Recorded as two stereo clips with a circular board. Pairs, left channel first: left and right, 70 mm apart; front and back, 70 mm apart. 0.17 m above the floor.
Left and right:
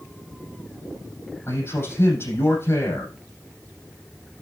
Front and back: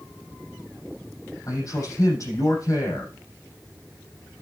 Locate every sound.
1.5 s a man speaking: 40° left, 6.5 m